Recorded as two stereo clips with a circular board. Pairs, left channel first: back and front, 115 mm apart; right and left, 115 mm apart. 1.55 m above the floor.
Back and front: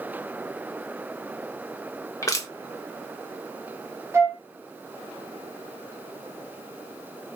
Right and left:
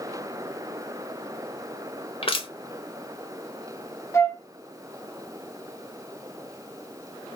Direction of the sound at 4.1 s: 50° right.